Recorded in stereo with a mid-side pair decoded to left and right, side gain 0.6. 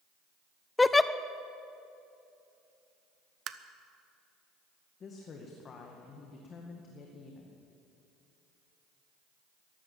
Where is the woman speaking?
40° left, 1.9 m.